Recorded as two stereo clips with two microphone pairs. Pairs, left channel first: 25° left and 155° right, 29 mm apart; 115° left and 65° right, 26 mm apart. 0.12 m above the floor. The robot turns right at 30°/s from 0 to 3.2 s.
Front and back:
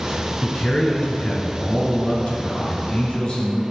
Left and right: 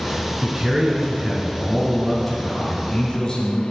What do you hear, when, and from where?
0.4 s a man speaking: 20° right, 1.7 m; by 3.6 s 65° left, 1.7 m